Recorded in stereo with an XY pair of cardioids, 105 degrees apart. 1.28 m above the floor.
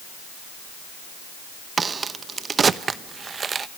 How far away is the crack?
About 0.8 m.